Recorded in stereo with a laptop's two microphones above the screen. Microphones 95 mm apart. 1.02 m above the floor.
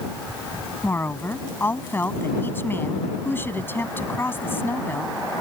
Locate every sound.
0.8 s a woman speaking: 25° left (ahead or behind)